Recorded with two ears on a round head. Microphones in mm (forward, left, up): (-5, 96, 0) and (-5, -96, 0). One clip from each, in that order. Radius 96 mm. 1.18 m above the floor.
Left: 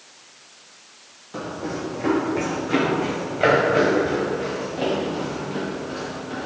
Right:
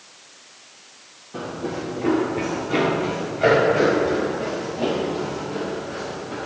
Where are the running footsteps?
50° left (ahead or behind), 3 m; by 6.5 s 80° left, 7.5 m.